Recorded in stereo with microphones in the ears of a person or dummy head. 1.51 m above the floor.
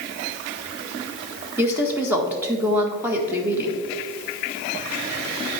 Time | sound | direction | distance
1.6 | a woman speaking | 10° right (ahead or behind) | 1.4 m